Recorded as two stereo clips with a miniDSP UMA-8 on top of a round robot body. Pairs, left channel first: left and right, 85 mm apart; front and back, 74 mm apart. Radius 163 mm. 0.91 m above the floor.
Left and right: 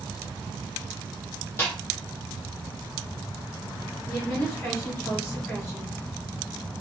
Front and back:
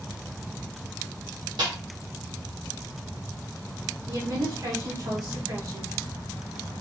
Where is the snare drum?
155° left, 1.1 m.